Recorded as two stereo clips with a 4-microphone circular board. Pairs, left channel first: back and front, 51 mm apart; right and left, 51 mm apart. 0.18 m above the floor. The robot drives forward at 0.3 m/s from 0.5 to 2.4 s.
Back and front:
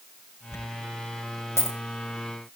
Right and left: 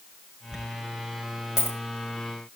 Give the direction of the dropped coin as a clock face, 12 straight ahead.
6 o'clock.